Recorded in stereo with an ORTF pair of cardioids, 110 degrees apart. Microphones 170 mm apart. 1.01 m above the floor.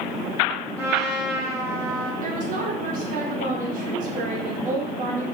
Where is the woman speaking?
55° right, 0.9 m.